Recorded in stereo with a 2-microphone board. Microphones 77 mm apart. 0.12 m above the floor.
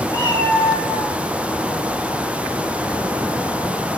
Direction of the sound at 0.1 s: 60° left (ahead or behind).